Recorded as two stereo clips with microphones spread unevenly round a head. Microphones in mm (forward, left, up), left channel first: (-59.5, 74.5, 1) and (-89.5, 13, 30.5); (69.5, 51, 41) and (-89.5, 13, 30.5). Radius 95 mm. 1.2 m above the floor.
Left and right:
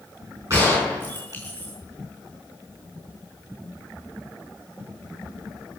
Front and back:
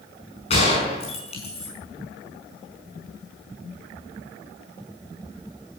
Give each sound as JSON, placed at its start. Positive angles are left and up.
{"t": 0.5, "sound": "a gunshot", "azimuth_deg": -45, "distance_m": 5.0}